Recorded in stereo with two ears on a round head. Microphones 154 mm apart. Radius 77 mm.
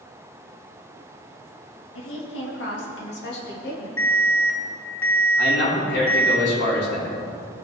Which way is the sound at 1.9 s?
90° left.